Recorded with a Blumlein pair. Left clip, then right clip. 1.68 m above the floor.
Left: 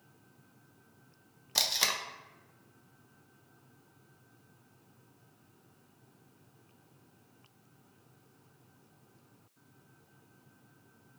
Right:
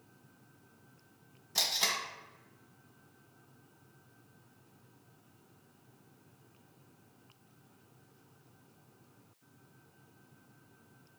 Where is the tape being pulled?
20° left, 0.7 m.